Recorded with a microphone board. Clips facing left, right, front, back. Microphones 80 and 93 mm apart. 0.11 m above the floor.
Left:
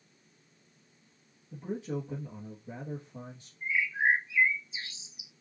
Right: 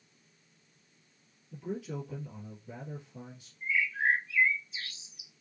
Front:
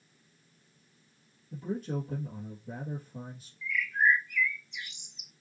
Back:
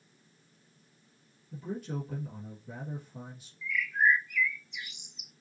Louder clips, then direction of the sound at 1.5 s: Left 2 dB, front 3 dB; 40° left.